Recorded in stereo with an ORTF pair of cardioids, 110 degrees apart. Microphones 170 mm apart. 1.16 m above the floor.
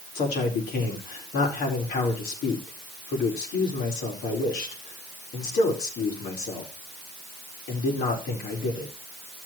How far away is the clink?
No clink in this recording.